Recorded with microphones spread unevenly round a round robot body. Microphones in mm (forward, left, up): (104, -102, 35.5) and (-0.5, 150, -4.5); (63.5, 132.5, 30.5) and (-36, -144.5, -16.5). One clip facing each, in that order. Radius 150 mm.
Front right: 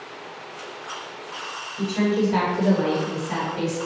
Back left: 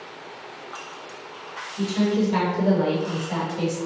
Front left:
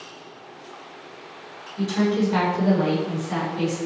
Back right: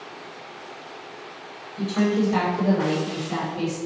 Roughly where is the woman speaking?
Behind left.